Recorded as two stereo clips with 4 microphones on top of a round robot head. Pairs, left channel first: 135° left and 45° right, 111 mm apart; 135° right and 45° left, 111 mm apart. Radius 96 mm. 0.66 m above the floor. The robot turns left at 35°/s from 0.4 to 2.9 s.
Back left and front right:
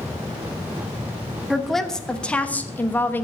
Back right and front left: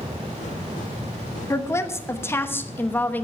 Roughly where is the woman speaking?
Behind right.